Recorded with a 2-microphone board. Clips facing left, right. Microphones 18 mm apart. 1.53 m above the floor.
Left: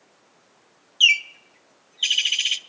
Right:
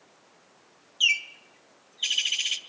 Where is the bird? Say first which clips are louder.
Left 6 dB; 25° left (ahead or behind), 0.5 m.